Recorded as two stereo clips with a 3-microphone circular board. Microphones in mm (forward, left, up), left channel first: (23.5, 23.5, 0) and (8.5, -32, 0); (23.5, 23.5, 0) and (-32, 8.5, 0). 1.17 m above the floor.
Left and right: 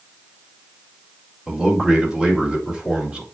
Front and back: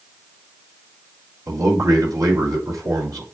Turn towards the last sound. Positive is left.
turn(degrees=175)